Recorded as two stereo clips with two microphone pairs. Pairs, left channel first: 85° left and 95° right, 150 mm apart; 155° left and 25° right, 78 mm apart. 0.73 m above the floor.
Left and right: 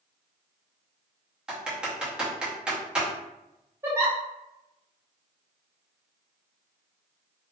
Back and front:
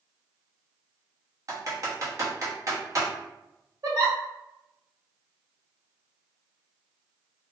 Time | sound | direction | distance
1.5 | typing on a keyboard | 15° right | 0.7 m
3.8 | a giggle | 30° right | 1.2 m